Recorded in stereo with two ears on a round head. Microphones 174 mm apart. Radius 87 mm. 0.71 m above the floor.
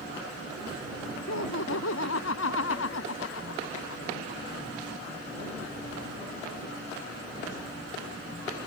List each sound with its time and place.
1.3 s laughter: 85° left